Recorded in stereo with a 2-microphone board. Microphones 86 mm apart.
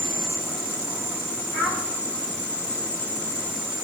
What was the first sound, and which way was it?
A child speaking, centre (ahead or behind).